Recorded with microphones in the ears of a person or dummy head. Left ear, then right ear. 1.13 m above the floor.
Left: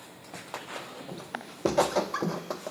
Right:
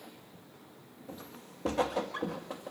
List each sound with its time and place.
1.1 s footsteps: 40° left (ahead or behind), 1.7 m; by 2.7 s 60° left (ahead or behind), 2.5 m